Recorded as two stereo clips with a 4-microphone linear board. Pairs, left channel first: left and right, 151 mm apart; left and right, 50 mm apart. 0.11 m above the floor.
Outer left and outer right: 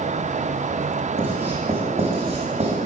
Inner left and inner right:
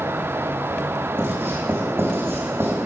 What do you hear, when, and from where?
1.2 s writing: 40° right (ahead or behind), 2.5 m